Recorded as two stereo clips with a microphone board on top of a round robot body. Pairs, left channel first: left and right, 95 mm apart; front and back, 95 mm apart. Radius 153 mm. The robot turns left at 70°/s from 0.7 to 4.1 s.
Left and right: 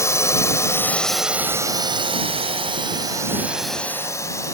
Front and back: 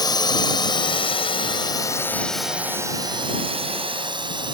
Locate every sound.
0.0 s a drone: 35° left; by 4.5 s 150° left